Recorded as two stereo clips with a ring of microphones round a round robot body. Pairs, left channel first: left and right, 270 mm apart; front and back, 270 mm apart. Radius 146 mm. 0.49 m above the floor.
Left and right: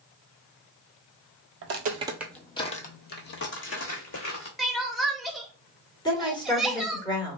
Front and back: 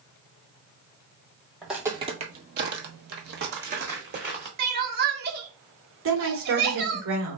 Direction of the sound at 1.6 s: 90° right.